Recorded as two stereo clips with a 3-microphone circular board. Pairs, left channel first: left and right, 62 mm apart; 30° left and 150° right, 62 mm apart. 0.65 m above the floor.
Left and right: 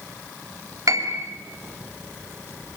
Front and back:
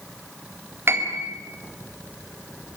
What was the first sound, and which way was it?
A piano, 100° right.